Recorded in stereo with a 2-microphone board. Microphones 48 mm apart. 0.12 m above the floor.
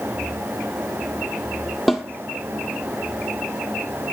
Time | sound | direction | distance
1.9 | a snare drum | centre (ahead or behind) | 1.3 m